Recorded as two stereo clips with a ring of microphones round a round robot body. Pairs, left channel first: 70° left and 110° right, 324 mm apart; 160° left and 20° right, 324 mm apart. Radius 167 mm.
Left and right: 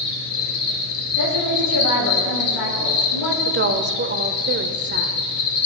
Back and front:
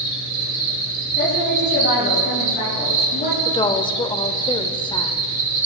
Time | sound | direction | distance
0.0 | an insect | 20° left | 3.5 m
1.2 | a woman speaking | 95° left | 6 m
3.5 | a woman speaking | 135° right | 1.1 m